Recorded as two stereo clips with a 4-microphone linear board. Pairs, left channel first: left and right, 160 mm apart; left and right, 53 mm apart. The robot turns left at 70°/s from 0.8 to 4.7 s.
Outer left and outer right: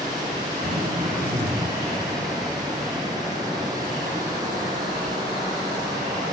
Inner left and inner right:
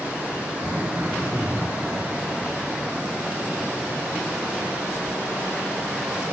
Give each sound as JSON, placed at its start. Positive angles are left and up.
{"t": 0.6, "sound": "throat clearing", "azimuth_deg": -40, "distance_m": 6.5}